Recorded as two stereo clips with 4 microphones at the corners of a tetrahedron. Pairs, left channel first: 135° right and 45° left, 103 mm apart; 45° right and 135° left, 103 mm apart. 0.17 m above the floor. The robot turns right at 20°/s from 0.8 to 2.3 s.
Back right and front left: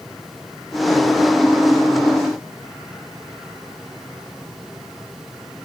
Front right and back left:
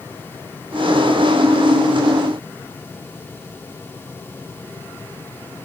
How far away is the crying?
I don't hear crying.